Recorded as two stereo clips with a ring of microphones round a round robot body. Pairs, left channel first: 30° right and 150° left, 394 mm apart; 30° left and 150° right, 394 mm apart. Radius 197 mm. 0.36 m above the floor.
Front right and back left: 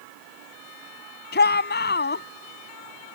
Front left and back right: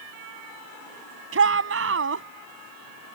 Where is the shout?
95° right.